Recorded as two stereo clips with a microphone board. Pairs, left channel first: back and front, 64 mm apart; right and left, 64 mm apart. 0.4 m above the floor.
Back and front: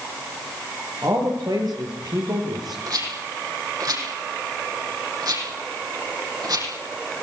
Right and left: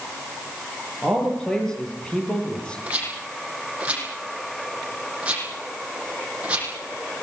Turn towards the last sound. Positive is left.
turn(degrees=20)